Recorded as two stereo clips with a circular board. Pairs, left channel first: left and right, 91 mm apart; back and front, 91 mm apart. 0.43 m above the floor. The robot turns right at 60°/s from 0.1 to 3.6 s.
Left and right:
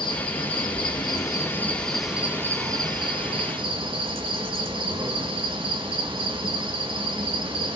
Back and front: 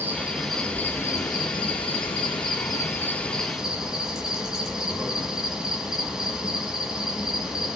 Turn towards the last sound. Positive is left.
turn(degrees=-85)